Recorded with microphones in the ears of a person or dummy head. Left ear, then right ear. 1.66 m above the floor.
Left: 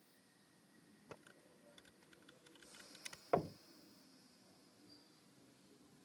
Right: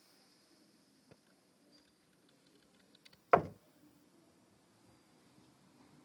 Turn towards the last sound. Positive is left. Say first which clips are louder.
# right 9 dB
turn(degrees=-55)  # may be behind; listen again after turning